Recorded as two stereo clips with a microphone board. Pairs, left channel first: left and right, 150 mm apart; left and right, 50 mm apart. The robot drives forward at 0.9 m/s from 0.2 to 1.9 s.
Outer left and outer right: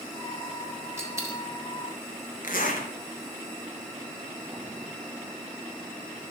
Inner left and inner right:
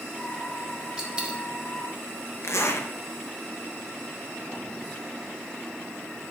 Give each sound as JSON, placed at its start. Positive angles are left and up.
{"t": 1.0, "sound": "a dropped coin", "side_deg": -20, "distance_m": 2.5}
{"t": 2.4, "sound": "a zipper", "side_deg": 65, "distance_m": 1.4}